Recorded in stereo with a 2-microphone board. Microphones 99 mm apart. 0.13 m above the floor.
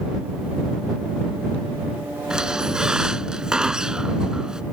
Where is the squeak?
5° right (ahead or behind).